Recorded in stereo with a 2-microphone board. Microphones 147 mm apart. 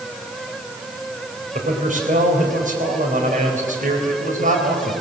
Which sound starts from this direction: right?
A man speaking, at 1.6 s.